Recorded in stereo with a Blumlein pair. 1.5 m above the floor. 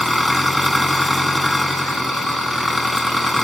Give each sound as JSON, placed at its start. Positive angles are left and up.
{"t": 0.0, "sound": "an engine running", "azimuth_deg": 5}